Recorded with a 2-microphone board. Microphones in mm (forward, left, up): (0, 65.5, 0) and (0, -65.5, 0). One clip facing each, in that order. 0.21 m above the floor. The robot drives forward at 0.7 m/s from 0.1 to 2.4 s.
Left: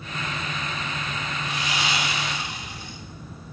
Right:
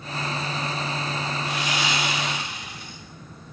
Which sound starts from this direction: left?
Sawing, at 1.4 s.